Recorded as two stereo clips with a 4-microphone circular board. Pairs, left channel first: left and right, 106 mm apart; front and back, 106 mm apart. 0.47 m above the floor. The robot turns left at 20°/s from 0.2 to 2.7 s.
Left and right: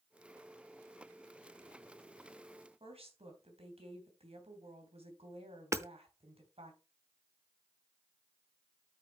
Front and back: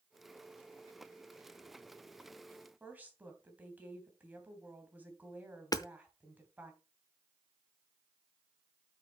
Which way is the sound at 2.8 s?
105° right.